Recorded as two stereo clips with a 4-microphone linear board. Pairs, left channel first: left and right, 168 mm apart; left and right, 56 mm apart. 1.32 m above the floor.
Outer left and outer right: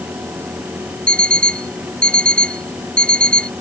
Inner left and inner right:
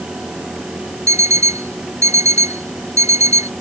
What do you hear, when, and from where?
1.1 s an alarm clock: 60° right (ahead or behind)